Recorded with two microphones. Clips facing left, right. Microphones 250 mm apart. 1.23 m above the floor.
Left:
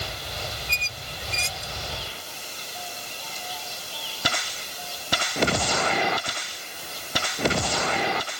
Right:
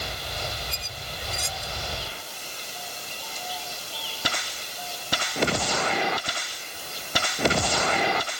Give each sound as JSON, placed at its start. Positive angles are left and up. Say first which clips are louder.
{"t": 0.7, "sound": "a squeak", "louder": "right 1 dB", "side_deg": 30}